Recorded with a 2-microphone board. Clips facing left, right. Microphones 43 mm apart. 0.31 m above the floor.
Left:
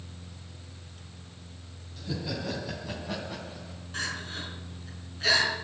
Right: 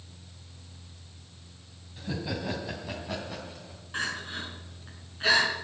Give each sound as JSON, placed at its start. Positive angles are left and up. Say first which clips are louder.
{"t": 2.0, "sound": "laughter", "louder": "right 1 dB", "side_deg": -25, "distance_m": 2.5}
{"t": 3.9, "sound": "crying", "louder": "right 2 dB", "side_deg": -25, "distance_m": 4.0}